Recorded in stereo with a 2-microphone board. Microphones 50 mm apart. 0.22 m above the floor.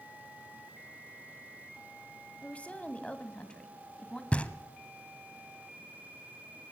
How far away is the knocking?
About 1.1 m.